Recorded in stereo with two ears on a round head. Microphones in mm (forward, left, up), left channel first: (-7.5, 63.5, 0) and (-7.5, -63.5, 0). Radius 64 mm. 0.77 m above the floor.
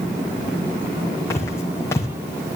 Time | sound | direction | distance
1.3 | footsteps | 20° left (ahead or behind) | 1.9 m